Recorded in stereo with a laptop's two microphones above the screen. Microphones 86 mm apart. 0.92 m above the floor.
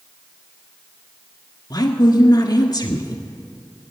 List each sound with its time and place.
1.7 s a woman speaking: 50° left (ahead or behind), 1.7 m